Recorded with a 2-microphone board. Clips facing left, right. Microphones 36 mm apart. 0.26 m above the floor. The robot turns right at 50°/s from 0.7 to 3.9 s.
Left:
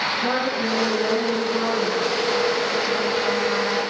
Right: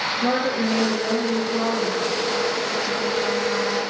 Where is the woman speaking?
70° right, 5.5 m; by 2.2 s 5° left, 5.5 m.